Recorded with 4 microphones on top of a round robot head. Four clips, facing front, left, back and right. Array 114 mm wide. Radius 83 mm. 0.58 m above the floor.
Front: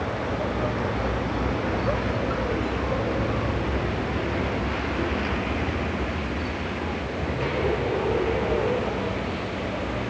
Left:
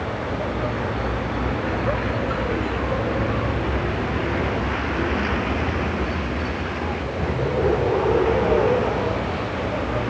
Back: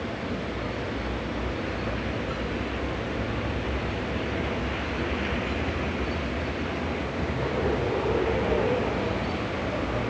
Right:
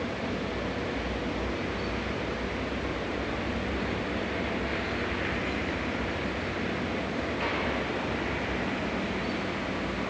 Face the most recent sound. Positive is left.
turn(degrees=100)